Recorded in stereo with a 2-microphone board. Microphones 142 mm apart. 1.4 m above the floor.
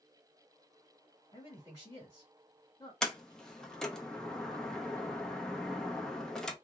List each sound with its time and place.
1.3 s a man speaking: 35° left (ahead or behind), 2 m
3.0 s a sliding door: 5° left (ahead or behind), 0.7 m